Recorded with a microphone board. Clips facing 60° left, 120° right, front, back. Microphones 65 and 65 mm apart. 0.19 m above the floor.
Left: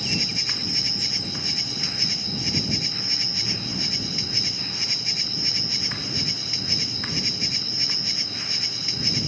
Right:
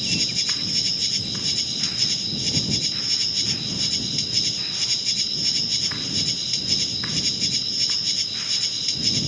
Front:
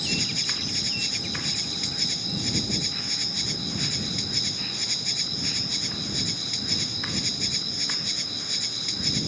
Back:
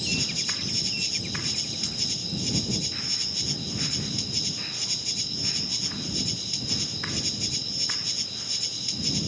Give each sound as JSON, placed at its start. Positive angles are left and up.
{"t": 0.0, "sound": "an insect", "azimuth_deg": 10}